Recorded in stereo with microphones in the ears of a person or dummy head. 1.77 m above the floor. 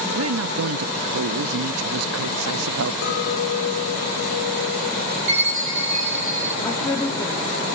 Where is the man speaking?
90° right, 0.8 m.